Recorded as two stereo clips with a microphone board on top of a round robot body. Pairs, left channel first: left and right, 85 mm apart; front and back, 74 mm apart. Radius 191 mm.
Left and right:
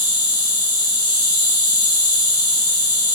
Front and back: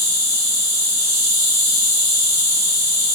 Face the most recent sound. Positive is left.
turn(degrees=125)